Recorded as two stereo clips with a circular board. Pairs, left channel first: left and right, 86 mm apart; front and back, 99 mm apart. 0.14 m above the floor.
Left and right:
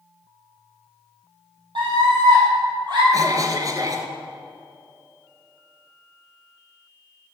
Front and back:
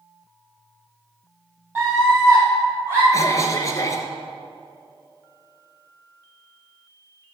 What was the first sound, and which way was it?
A scream, 110° right.